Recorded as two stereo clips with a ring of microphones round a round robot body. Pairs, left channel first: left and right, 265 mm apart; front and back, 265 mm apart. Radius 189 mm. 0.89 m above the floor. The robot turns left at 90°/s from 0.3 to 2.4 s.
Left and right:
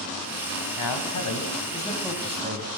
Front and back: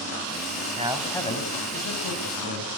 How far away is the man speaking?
About 5 m.